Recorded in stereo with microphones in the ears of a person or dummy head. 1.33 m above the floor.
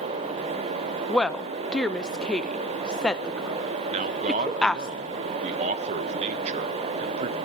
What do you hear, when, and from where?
1.1 s a woman speaking: 5° right (ahead or behind), 0.6 m
3.9 s a man speaking: 30° right (ahead or behind), 1.0 m